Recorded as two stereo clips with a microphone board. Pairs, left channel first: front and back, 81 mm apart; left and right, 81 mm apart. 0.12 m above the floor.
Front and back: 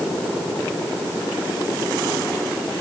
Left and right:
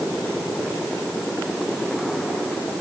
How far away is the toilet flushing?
No toilet flushing in this recording.